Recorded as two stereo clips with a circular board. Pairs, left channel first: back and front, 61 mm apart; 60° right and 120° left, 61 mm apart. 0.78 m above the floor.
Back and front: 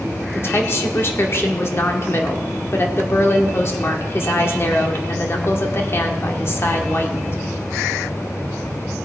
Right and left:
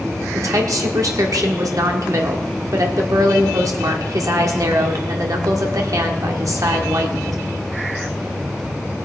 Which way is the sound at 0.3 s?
135° left.